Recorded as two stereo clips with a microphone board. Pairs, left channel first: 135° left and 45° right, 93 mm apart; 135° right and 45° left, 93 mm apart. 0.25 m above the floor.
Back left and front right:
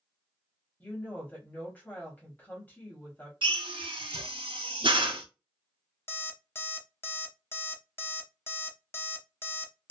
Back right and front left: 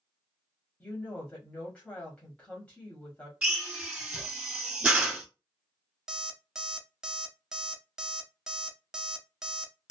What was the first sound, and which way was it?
A woman speaking, 170° left.